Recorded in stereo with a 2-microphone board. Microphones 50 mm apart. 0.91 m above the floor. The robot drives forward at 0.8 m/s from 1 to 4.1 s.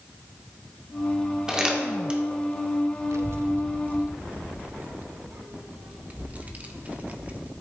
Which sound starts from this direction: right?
A child speaking, at 3.1 s.